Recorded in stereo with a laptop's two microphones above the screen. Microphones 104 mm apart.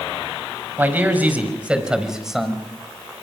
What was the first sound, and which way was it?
A man speaking, 20° right (ahead or behind).